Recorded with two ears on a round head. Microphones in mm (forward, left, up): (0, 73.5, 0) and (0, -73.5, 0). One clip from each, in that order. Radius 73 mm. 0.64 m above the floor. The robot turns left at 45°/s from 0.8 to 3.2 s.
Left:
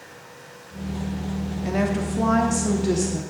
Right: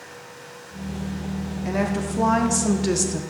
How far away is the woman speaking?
About 1.0 m.